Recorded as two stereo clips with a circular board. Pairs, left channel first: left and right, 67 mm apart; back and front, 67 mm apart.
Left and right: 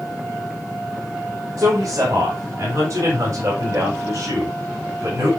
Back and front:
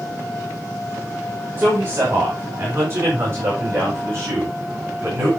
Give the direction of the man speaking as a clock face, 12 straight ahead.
2 o'clock.